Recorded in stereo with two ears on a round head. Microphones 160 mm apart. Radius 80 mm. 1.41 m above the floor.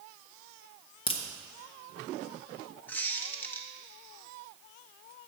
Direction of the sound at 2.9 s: 10° left (ahead or behind).